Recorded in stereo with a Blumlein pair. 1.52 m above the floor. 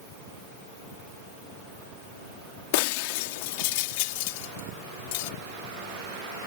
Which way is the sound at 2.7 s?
45° left.